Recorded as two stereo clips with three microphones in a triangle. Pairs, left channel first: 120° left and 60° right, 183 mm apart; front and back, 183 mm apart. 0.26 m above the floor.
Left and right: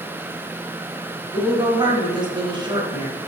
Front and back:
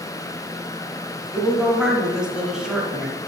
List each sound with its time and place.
1.3 s a woman speaking: 95° right, 1.3 m